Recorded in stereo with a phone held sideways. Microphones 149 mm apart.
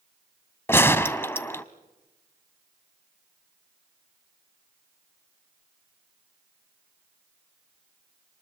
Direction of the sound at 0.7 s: 15° left (ahead or behind).